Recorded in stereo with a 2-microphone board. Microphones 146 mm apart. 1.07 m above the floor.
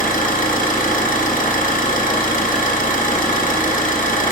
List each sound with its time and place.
0.0 s an engine running: 65° left (ahead or behind), 0.8 m